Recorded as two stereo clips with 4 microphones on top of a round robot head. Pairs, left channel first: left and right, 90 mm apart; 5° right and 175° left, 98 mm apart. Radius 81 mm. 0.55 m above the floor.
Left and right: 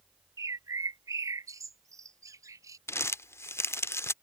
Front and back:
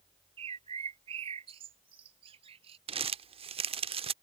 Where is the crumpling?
150° left.